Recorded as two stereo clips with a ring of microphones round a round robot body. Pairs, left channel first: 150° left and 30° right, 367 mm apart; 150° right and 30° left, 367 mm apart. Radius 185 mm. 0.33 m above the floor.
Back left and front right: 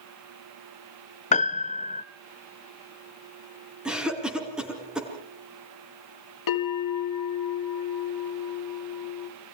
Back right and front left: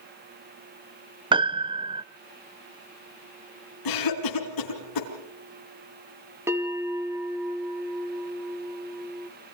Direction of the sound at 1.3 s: 95° left.